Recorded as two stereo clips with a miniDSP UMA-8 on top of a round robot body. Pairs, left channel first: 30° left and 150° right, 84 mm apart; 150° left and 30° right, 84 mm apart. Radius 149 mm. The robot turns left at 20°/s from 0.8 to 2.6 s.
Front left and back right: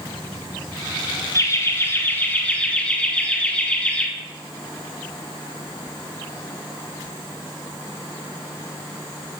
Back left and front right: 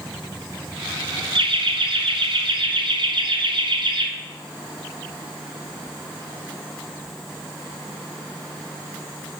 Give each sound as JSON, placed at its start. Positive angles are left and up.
{"t": 1.4, "sound": "laughter", "azimuth_deg": -20, "distance_m": 1.6}